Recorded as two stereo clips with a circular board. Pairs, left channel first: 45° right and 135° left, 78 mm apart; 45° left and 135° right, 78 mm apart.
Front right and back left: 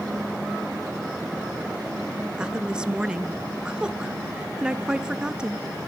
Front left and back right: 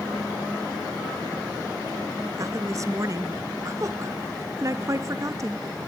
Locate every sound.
2.4 s a woman speaking: 150° right, 1.5 m